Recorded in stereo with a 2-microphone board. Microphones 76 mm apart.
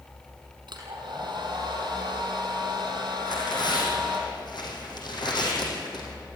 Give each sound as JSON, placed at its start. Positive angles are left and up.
{"t": 0.7, "sound": "a hair dryer", "side_deg": -65, "distance_m": 5.0}
{"t": 3.2, "sound": "tearing paper", "side_deg": 65, "distance_m": 4.5}